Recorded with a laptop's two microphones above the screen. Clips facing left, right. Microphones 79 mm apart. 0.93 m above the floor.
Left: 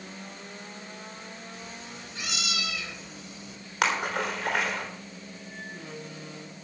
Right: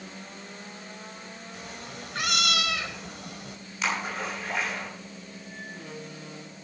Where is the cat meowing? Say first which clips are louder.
Right 2 dB; 75° right (ahead or behind), 1.7 m.